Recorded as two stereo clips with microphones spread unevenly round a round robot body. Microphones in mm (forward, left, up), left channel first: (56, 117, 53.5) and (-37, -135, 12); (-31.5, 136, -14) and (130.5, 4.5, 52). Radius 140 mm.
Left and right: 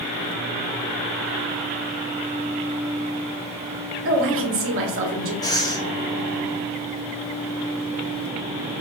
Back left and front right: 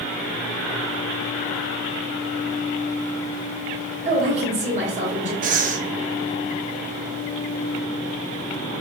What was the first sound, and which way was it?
A woman speaking, 110° right.